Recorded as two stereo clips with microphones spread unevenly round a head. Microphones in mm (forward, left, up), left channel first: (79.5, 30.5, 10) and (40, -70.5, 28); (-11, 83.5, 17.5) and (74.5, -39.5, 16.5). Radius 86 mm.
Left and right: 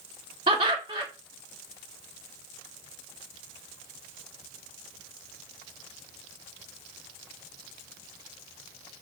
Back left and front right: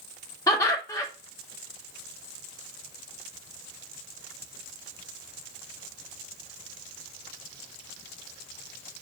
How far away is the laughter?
About 0.7 m.